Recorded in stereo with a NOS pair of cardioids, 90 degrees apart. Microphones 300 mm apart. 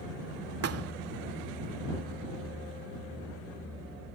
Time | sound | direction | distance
0.6 | a thud | 55° right | ?